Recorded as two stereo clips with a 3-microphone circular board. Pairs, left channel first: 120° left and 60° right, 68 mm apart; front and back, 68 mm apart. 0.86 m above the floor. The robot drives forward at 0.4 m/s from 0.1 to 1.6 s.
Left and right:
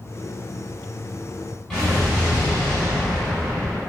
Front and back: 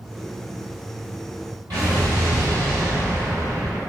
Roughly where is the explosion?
Behind right.